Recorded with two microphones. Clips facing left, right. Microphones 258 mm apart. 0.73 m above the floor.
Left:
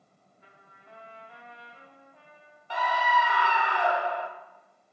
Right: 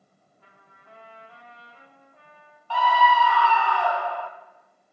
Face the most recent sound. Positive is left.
turn(degrees=20)  # may be behind; listen again after turning